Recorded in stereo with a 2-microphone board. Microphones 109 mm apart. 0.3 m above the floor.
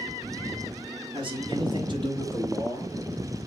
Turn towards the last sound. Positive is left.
turn(degrees=-45)  # may be behind; listen again after turning